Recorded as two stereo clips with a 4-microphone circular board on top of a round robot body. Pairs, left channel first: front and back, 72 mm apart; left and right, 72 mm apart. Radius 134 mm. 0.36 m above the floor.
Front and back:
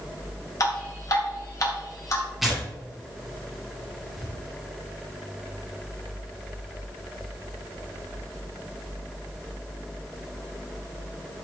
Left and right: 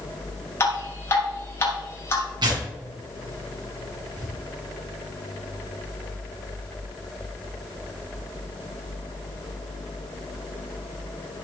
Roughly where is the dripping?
Ahead left.